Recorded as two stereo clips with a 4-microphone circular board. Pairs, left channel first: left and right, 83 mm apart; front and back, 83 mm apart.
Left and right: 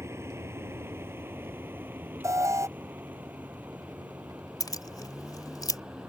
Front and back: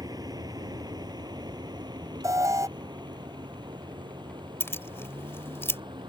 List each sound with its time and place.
0.0 s a vehicle: 145° right; by 6.1 s 170° right
2.2 s an alarm: 135° right
4.6 s keys jangling: 60° left